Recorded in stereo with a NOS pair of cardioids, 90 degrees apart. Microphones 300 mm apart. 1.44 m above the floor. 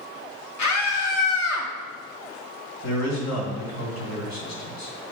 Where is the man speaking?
60° left, 3.5 m.